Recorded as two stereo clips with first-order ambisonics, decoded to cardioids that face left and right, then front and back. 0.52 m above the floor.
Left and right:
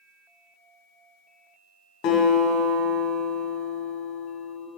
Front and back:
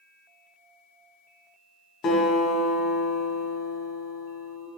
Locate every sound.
2.0 s a guitar: 60° left, 2 m